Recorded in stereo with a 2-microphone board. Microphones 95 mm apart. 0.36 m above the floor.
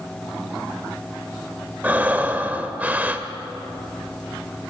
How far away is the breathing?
About 0.7 m.